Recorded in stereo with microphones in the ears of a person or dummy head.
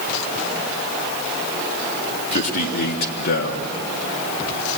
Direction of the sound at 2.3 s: 40° left (ahead or behind).